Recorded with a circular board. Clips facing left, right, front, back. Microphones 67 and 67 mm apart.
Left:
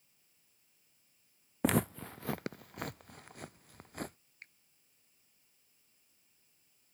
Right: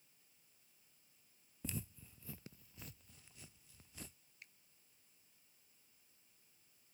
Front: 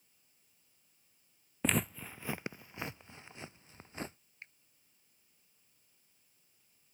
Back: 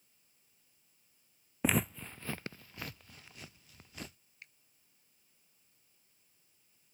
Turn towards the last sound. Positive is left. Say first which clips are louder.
# left 6 dB, front 3 dB
turn(degrees=55)